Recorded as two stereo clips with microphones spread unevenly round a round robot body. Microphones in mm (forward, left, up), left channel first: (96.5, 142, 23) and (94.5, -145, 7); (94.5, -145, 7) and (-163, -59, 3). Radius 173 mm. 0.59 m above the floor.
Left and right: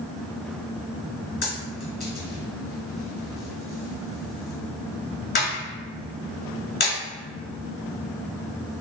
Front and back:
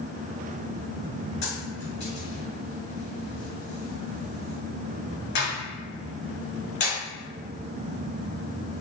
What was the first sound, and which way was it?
A dropped coin, 30° left.